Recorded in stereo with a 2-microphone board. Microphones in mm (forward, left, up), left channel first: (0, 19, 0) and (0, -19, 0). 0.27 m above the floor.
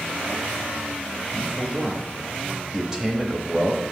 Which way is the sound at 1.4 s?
20° right (ahead or behind).